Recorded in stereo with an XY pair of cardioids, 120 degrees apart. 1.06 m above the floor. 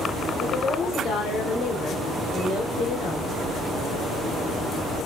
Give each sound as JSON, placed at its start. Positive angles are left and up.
{"t": 0.4, "sound": "a woman speaking", "azimuth_deg": 60, "distance_m": 4.0}